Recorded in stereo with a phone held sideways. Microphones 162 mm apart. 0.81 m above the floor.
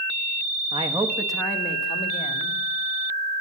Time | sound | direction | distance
0.7 | a man speaking | 35° right (ahead or behind) | 1.3 m